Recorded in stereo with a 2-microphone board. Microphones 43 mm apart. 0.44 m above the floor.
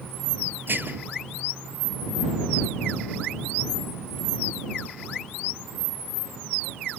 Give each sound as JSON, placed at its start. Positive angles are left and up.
{"t": 0.7, "sound": "dishes clattering", "side_deg": -50}